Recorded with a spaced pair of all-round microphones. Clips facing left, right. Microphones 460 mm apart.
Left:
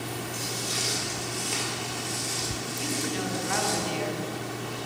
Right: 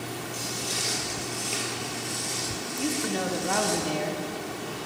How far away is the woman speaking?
About 0.6 m.